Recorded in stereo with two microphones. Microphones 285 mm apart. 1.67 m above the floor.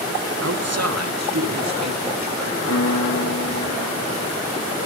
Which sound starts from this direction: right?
A man speaking, at 0.4 s.